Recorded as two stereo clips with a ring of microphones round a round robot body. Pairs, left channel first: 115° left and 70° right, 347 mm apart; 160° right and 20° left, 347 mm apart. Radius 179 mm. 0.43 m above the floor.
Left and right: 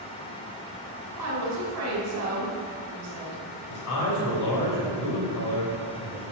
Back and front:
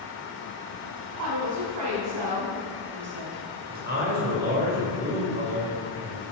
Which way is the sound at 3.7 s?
85° left.